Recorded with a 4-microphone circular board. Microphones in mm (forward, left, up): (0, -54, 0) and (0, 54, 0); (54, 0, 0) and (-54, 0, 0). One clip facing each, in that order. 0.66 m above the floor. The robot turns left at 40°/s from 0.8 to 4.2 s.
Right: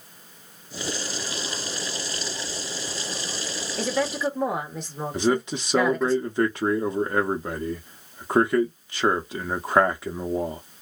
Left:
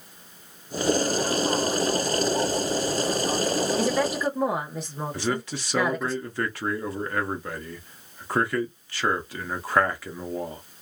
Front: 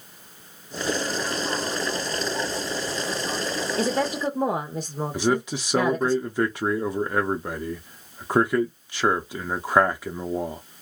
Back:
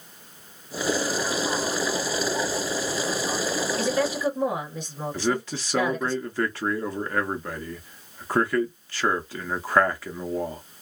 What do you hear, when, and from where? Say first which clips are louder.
3.8 s a woman speaking: left 1 dB, front 1 dB; 20° left, 0.9 m; by 6.1 s 5° left, 0.9 m
5.1 s a man speaking: right 7 dB, front 3 dB; 55° right, 0.6 m